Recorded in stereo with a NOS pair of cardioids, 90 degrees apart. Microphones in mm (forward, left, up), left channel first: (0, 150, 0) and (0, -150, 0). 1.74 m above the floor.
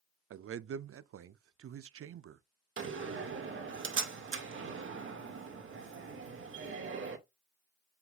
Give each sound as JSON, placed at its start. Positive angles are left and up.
{"t": 0.3, "sound": "a man speaking", "azimuth_deg": -45, "distance_m": 0.7}
{"t": 2.8, "sound": "a door slam", "azimuth_deg": -45, "distance_m": 2.0}